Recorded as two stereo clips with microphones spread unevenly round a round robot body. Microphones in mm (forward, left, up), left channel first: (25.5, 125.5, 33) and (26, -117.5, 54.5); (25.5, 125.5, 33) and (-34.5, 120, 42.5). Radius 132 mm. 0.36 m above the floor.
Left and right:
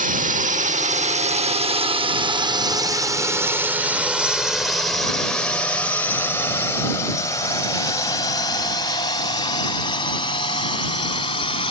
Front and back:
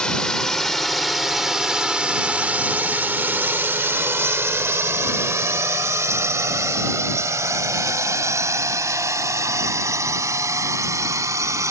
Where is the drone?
55° right; by 11.7 s 160° left.